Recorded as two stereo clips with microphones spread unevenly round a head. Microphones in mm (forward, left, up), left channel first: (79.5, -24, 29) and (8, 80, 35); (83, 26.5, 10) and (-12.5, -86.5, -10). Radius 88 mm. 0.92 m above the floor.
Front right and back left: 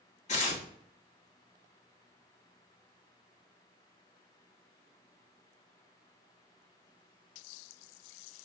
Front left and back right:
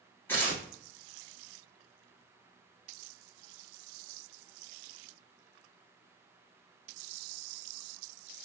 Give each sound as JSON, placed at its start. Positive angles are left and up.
{"t": 0.3, "sound": "tearing paper", "azimuth_deg": -30, "distance_m": 1.8}